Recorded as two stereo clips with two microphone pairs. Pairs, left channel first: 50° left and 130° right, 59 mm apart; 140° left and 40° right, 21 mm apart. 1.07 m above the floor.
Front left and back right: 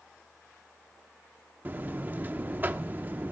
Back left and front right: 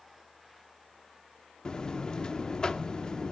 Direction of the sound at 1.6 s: 175° right.